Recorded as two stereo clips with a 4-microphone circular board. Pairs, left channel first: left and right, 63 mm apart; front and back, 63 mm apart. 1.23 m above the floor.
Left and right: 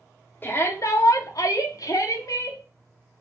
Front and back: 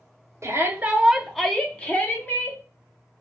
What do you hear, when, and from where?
0.4 s a shout: 145° left, 0.5 m; by 2.6 s 60° left, 1.1 m